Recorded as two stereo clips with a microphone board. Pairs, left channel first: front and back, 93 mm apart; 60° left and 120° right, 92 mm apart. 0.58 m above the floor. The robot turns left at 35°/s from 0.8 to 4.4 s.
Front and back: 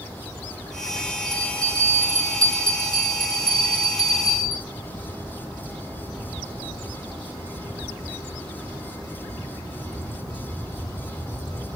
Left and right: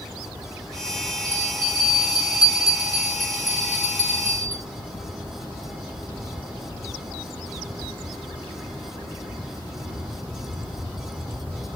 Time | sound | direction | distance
1.2 | a bell | 45° left | 3 m